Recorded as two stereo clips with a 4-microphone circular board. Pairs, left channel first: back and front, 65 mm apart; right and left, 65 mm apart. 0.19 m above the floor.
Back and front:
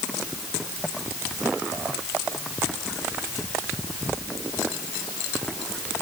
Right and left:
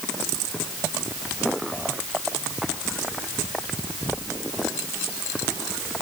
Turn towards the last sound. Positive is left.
No sound to turn to.